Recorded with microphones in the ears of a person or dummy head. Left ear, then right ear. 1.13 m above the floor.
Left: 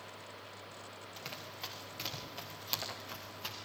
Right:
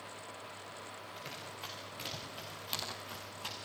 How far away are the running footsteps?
About 7 m.